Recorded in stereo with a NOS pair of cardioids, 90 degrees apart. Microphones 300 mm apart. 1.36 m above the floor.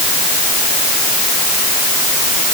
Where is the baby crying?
I don't hear a baby crying.